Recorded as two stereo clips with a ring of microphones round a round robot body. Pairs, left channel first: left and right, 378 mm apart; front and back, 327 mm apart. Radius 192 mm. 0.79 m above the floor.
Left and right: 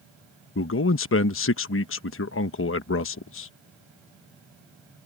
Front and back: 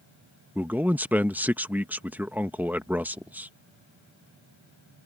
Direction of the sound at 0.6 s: 100° left.